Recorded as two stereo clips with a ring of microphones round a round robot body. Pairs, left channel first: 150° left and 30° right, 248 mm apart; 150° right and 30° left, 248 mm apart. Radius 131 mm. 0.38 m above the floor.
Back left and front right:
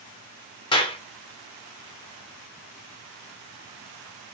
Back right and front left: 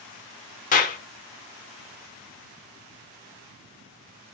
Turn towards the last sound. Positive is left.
turn(degrees=-160)